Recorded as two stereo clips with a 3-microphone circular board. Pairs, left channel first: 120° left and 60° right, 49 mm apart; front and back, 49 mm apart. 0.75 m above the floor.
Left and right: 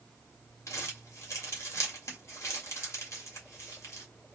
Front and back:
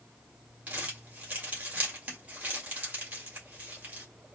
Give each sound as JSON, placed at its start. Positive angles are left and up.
{"t": 0.7, "sound": "crumpling", "azimuth_deg": 130, "distance_m": 1.8}